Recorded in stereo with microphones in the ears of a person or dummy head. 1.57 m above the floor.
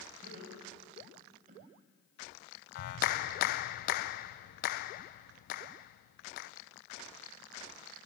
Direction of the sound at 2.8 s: 60° left (ahead or behind).